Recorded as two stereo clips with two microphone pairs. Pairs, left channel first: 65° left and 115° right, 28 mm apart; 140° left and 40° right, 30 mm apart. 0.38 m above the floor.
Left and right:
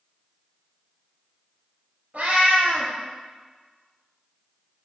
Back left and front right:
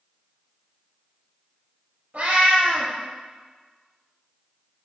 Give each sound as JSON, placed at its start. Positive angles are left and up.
{"t": 2.1, "sound": "a cat meowing", "azimuth_deg": -75, "distance_m": 1.5}